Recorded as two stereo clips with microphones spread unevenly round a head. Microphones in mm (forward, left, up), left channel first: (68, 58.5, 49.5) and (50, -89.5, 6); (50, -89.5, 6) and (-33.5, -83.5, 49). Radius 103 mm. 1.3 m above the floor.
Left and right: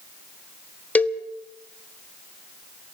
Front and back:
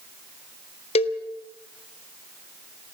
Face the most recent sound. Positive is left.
turn(degrees=10)